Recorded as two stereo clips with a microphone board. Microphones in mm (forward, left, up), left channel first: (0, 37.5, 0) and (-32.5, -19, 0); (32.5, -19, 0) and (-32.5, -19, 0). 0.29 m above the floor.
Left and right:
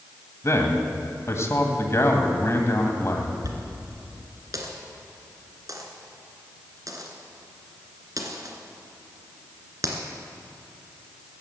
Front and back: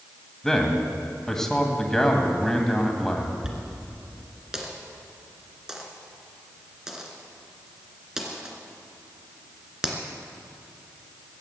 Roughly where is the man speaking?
Left.